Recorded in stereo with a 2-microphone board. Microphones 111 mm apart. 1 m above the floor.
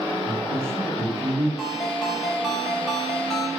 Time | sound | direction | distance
0.3 | a man speaking | 25° right (ahead or behind) | 2.5 m
1.6 | a ringtone | centre (ahead or behind) | 3.5 m